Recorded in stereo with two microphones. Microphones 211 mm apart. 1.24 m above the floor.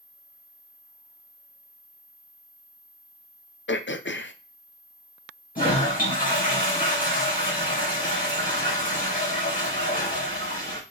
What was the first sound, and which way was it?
Throat clearing, 60° left (ahead or behind).